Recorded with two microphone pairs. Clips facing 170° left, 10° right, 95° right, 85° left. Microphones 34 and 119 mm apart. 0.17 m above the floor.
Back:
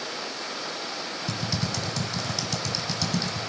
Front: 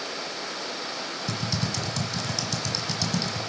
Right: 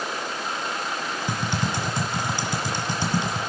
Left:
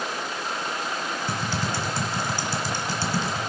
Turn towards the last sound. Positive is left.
turn(degrees=-120)